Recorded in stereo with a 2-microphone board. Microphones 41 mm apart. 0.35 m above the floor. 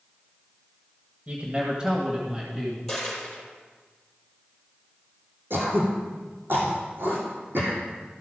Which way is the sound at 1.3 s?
35° right (ahead or behind).